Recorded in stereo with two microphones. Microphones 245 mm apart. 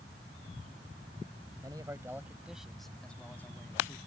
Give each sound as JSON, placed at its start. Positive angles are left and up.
{"t": 1.6, "sound": "a man speaking", "side_deg": -20}